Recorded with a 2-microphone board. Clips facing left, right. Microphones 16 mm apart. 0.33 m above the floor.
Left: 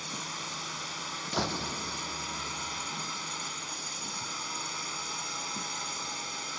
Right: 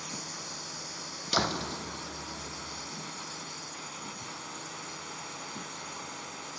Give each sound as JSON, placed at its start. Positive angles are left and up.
{"t": 0.0, "sound": "a drone", "side_deg": 45}
{"t": 1.3, "sound": "a door slam", "side_deg": -45}